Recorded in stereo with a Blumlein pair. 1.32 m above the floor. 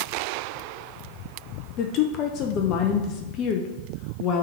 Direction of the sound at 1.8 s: 35° left.